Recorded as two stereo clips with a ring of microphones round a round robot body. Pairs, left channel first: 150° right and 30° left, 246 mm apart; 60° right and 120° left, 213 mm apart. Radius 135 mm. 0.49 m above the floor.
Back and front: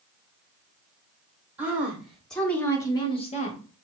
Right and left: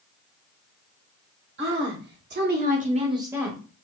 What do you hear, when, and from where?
1.6 s a woman speaking: 110° left, 2 m; by 3.6 s 150° right, 1.1 m